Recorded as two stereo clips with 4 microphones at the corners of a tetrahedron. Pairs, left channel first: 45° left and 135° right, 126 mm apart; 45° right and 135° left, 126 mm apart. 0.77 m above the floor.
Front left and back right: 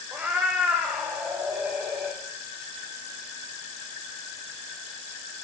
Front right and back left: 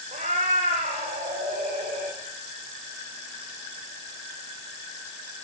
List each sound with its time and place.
0.1 s a cat meowing: 150° left, 9 m; by 2.2 s 155° left, 8.5 m